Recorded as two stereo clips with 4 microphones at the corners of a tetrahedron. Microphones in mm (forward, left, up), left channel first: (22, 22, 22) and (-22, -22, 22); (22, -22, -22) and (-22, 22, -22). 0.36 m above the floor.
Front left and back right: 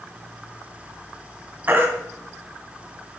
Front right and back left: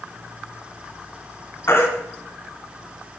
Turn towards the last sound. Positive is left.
turn(degrees=-85)